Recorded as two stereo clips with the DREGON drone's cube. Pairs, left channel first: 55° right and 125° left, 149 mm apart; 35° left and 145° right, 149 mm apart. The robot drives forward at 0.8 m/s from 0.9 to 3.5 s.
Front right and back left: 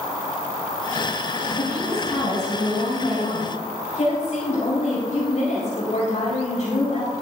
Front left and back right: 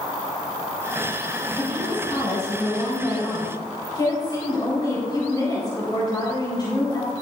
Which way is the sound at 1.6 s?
20° right.